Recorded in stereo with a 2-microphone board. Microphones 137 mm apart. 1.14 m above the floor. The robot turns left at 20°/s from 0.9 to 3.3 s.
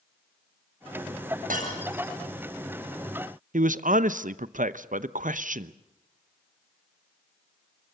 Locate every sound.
1.5 s breaking glass: 85° right, 7.5 m
3.5 s a man speaking: 75° right (ahead or behind), 0.8 m